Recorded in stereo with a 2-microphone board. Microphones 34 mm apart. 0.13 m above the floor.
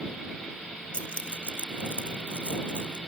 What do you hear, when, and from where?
0.9 s keys jangling: 35° left (ahead or behind)